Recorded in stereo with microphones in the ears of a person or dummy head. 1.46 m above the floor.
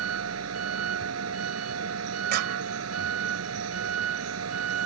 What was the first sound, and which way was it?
A vehicle, 80° right.